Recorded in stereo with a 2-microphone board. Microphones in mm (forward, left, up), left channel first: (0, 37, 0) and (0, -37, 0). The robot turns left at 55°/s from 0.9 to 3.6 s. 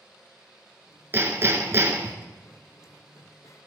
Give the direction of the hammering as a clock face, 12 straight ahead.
2 o'clock.